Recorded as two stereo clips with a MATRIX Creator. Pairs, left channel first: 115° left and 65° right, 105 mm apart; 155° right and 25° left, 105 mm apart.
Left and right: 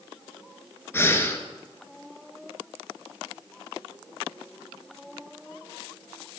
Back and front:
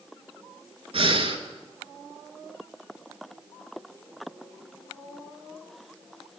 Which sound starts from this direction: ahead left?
Breathing, at 0.9 s.